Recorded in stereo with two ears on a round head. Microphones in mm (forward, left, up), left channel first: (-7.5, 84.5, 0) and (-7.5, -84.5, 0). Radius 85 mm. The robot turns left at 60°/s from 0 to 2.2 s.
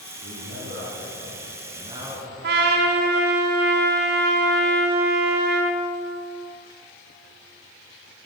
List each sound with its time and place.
0.2 s a man speaking: 50° right, 3.5 m; by 2.3 s 170° right, 3.5 m
2.4 s a trumpet: 60° right (ahead or behind), 1.9 m